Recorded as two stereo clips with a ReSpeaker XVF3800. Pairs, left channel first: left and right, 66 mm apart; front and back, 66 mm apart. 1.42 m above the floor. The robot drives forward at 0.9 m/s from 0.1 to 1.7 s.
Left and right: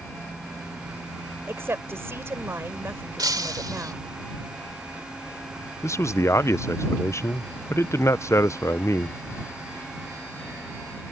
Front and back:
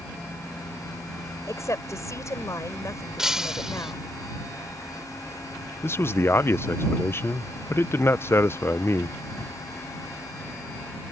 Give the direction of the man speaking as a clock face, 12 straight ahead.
10 o'clock.